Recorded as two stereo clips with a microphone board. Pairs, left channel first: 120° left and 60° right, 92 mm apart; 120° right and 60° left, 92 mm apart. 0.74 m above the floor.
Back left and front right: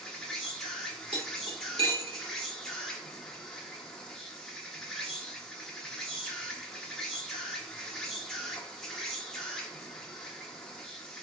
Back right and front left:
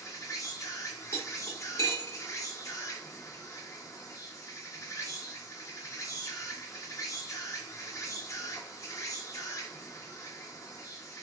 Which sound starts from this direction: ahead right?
Cutlery clinking, at 1.1 s.